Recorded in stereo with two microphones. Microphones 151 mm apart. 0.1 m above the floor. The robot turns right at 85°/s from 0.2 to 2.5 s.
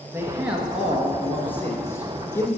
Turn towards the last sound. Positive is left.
turn(degrees=15)  # may be behind; listen again after turning